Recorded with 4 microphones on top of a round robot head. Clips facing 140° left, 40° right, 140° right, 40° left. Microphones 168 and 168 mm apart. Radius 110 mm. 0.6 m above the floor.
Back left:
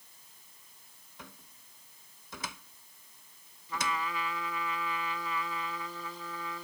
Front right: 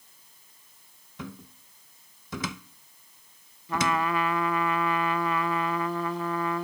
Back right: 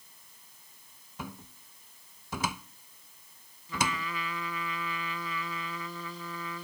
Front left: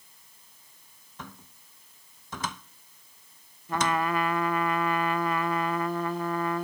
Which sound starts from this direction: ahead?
A trumpet, at 3.7 s.